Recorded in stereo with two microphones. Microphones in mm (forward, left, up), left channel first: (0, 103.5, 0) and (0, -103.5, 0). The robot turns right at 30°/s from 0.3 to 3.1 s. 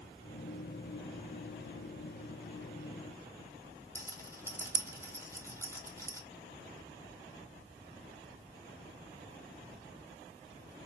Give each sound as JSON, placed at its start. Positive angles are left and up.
{"t": 4.0, "sound": "a rattle", "side_deg": -15, "distance_m": 0.8}